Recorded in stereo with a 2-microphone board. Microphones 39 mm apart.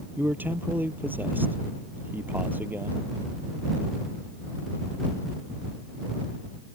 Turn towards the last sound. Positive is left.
turn(degrees=-60)  # may be behind; listen again after turning